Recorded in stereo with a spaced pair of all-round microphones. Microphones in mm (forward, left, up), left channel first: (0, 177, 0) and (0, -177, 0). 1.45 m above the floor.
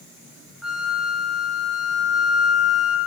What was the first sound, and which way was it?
A flute, centre (ahead or behind).